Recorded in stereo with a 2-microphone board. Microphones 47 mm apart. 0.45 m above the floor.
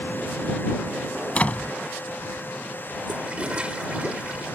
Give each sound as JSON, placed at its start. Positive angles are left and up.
{"t": 1.4, "sound": "a door slam", "side_deg": 30}
{"t": 3.1, "sound": "a toilet flushing", "side_deg": -25}